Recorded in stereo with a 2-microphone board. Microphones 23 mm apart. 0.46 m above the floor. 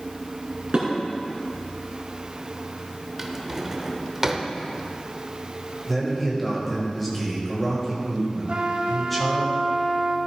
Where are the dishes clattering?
45° right (ahead or behind), 3.5 m.